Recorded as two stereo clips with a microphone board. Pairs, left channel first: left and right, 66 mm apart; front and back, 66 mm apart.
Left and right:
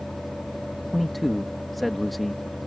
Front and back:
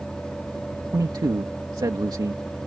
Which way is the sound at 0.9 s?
Straight behind.